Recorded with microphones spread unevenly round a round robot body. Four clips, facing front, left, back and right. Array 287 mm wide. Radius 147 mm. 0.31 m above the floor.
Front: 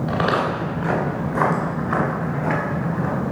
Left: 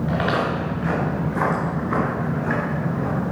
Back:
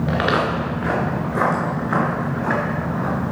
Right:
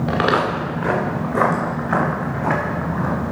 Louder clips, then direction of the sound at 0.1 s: Right 5 dB, even; 115° right.